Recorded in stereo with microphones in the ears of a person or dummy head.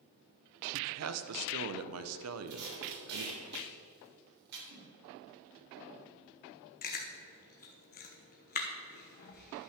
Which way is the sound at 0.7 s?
75° right (ahead or behind).